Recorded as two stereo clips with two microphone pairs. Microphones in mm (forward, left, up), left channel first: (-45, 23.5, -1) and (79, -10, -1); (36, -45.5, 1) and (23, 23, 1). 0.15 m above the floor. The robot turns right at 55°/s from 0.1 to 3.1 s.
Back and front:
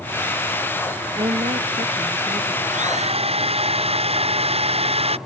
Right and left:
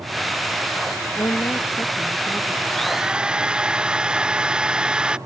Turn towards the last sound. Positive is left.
turn(degrees=25)